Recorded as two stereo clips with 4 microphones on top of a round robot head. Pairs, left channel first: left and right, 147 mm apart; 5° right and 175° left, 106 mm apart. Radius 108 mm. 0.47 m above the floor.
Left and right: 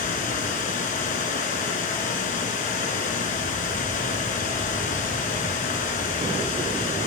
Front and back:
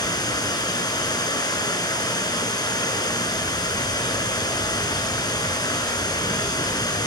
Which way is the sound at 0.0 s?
45° left.